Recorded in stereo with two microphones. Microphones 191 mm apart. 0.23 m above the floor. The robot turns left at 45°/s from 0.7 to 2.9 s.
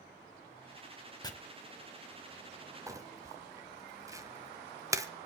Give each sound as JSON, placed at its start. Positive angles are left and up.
{"t": 1.2, "sound": "chopping", "side_deg": 20, "distance_m": 1.1}
{"t": 2.9, "sound": "crumpling", "side_deg": -15, "distance_m": 0.7}